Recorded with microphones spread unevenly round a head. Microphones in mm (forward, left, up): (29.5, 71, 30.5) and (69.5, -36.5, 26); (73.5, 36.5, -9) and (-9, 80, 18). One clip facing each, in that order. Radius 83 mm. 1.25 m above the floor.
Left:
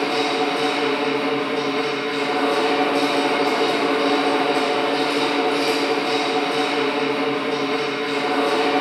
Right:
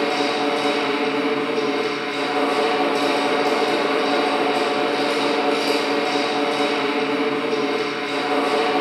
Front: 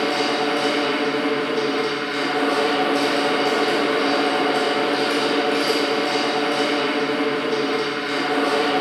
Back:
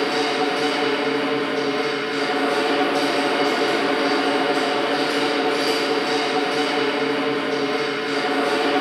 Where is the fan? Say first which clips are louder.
Even, even; 155° right, 1.2 m.